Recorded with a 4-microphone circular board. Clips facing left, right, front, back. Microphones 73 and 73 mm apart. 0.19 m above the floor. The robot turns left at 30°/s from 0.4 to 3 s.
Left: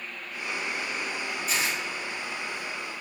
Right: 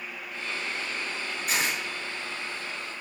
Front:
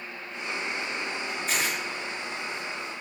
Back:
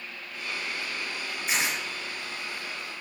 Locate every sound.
1.5 s tearing paper: 105° right, 2.5 m; by 1.8 s 115° right, 2.5 m